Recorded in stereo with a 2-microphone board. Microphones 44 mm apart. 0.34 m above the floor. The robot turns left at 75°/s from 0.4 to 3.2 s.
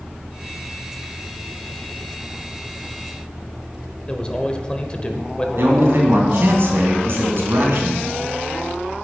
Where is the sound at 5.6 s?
60° right (ahead or behind), 3 m.